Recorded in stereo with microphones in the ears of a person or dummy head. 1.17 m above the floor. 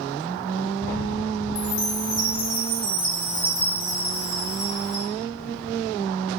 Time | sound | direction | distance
1.6 | a chime | 65° left (ahead or behind) | 2.5 m